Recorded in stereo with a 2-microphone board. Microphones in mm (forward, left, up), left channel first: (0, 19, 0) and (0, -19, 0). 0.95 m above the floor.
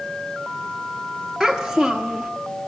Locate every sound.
1.4 s a child speaking: 5° left (ahead or behind), 1.4 m